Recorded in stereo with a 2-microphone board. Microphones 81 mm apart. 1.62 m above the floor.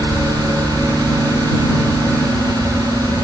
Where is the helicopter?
60° left (ahead or behind).